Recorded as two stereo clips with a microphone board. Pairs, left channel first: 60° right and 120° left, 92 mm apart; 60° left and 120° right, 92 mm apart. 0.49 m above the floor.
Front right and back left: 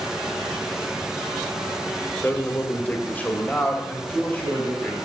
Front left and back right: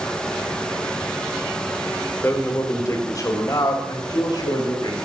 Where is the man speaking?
5° left, 1.3 m; by 5.0 s 15° left, 3.5 m.